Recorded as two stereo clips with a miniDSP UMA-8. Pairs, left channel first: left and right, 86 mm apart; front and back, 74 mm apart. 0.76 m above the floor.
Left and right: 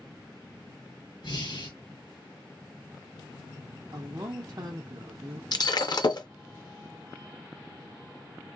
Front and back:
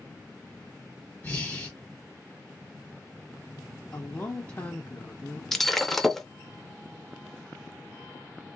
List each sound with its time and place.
1.2 s breathing: 70° left, 1.4 m
3.9 s a woman speaking: 55° right, 0.8 m
5.5 s breaking glass: 85° left, 0.5 m